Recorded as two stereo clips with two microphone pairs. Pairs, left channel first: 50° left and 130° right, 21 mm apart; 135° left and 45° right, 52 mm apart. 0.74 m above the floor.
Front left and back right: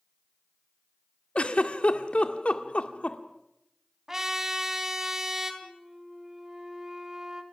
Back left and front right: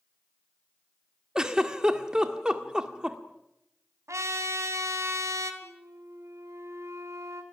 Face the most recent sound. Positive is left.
turn(degrees=-65)